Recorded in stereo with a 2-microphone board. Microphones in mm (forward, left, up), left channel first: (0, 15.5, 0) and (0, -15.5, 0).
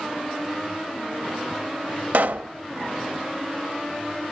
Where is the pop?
70° right (ahead or behind), 0.6 m.